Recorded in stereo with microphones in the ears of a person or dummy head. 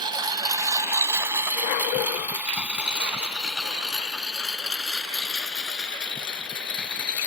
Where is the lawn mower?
30° right (ahead or behind); by 7.3 s 5° left (ahead or behind).